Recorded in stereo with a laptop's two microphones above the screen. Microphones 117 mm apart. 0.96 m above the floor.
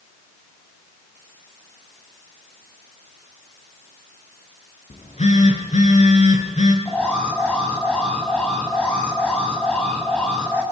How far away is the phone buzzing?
About 5.5 m.